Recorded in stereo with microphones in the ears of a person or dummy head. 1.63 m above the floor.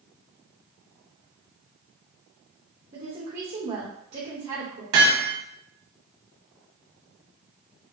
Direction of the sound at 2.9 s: 45° right (ahead or behind).